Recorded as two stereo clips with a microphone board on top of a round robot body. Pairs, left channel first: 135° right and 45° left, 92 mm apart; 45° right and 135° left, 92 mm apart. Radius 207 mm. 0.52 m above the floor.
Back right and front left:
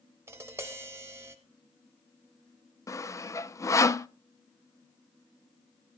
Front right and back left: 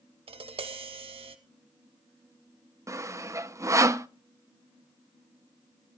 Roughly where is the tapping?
Left.